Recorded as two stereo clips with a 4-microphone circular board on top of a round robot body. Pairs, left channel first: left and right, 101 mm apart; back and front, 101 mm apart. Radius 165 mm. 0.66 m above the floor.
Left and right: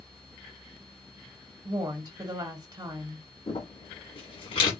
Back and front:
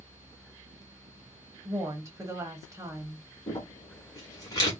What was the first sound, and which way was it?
A woman speaking, 50° right.